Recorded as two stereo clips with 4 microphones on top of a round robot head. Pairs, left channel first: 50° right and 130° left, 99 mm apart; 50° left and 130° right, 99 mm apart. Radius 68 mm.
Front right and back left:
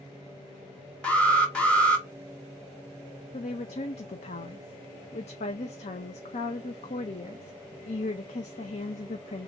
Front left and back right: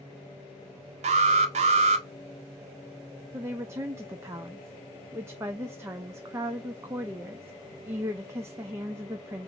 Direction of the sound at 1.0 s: 130° right.